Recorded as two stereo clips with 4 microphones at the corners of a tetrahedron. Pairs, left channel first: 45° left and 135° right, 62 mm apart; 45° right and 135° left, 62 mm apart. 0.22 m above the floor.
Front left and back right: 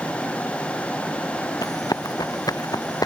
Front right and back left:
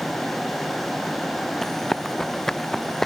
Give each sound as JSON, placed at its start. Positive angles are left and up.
{"t": 1.6, "sound": "running footsteps", "azimuth_deg": 40}